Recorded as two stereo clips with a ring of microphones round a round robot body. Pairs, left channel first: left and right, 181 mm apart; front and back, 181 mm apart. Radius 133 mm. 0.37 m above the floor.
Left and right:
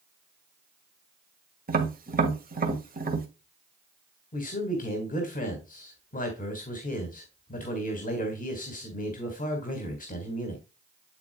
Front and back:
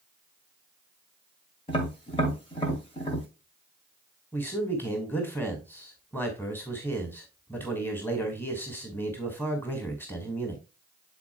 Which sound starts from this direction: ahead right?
Tapping, at 1.7 s.